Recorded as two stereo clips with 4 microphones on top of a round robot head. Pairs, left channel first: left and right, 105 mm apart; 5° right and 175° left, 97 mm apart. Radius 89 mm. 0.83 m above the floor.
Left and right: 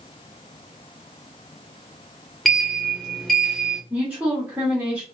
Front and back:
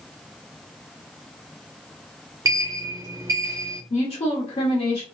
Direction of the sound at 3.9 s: 10° right.